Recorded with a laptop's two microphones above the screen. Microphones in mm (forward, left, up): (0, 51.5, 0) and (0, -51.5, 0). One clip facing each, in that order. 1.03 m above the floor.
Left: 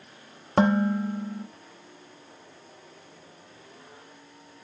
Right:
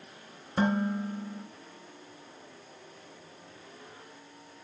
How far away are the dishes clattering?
About 0.8 m.